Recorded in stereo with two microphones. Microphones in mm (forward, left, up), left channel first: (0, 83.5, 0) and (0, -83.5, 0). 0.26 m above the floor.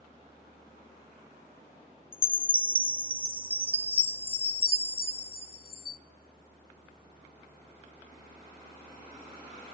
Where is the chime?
35° left (ahead or behind), 0.8 m.